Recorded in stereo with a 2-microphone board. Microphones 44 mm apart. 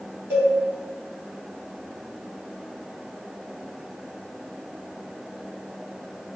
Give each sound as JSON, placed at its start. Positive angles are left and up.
{"t": 0.3, "sound": "a cowbell", "side_deg": -50, "distance_m": 2.0}